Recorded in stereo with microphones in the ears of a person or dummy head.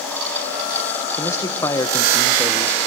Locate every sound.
1.2 s a man speaking: 20° left (ahead or behind), 1.6 m